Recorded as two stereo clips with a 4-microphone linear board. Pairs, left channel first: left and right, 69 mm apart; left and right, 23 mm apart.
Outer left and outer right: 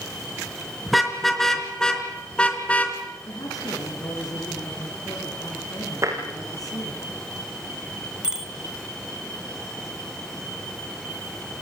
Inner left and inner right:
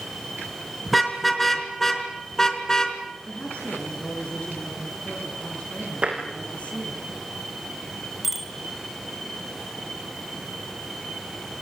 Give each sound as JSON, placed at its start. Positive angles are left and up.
{"t": 0.9, "sound": "a car horn", "side_deg": 0, "distance_m": 4.0}
{"t": 3.3, "sound": "a woman speaking", "side_deg": 60, "distance_m": 6.0}
{"t": 6.0, "sound": "tapping", "side_deg": -45, "distance_m": 6.5}
{"t": 8.2, "sound": "a bicycle bell", "side_deg": -10, "distance_m": 3.5}